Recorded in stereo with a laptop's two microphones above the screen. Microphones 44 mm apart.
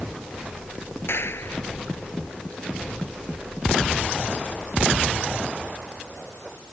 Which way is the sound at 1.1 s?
70° left (ahead or behind).